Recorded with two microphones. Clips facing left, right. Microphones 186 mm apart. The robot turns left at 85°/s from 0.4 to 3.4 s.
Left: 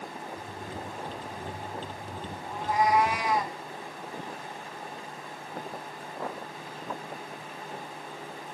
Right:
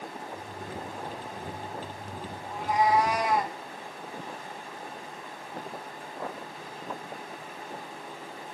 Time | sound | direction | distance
2.5 | a cat meowing | 5° left | 1.4 m